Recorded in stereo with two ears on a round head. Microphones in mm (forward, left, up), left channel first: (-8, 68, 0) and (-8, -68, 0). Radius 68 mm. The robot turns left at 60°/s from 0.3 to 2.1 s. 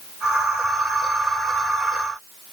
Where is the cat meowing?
I don't hear a cat meowing.